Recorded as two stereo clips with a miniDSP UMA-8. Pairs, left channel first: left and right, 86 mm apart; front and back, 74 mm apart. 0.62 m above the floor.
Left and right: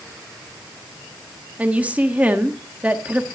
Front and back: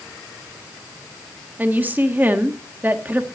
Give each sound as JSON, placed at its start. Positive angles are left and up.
{"t": 1.6, "sound": "a woman speaking", "azimuth_deg": -145, "distance_m": 1.3}